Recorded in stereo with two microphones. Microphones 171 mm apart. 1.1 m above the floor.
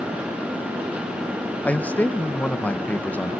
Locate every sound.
1.6 s a man speaking: 10° left (ahead or behind), 1.0 m